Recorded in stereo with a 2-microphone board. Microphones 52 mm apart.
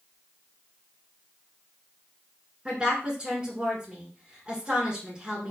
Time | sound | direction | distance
2.6 | a woman speaking | 20° right (ahead or behind) | 1.7 m